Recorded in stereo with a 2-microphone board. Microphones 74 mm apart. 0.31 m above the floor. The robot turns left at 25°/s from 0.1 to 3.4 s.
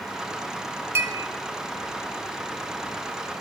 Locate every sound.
0.9 s a clink: 40° right (ahead or behind), 0.7 m; by 1.2 s 35° right (ahead or behind), 0.7 m